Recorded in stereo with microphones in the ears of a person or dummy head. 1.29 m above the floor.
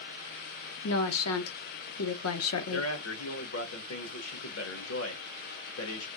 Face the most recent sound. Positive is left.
turn(degrees=90)